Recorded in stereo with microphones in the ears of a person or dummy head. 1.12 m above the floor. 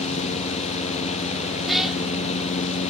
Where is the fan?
35° left (ahead or behind).